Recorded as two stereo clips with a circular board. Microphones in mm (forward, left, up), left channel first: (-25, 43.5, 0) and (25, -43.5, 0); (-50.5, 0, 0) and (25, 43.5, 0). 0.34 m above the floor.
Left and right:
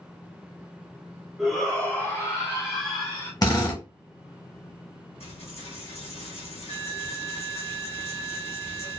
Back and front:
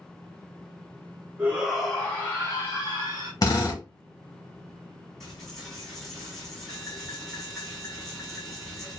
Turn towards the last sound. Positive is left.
turn(degrees=125)